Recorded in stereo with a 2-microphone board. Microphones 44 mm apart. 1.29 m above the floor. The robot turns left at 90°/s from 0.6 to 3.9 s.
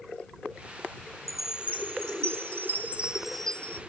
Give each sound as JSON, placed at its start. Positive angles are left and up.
{"t": 1.3, "sound": "a chime", "azimuth_deg": 5}